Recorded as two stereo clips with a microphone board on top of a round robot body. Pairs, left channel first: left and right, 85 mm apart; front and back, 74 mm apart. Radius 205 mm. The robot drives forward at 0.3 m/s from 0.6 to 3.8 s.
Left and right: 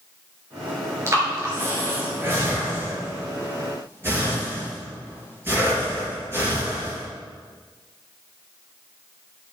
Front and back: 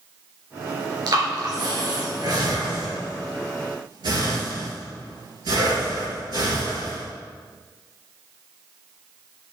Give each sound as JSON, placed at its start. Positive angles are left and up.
{"t": 1.1, "sound": "breathing", "azimuth_deg": -150, "distance_m": 4.0}